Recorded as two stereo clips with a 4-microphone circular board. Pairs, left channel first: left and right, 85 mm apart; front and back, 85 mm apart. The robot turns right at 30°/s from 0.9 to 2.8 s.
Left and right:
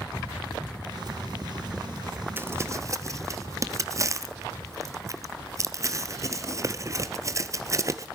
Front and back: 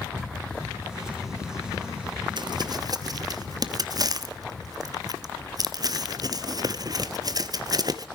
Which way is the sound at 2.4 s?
155° right.